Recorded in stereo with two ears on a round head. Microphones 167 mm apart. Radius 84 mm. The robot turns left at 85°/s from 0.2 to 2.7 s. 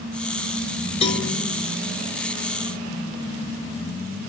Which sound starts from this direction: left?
A cowbell, at 1.0 s.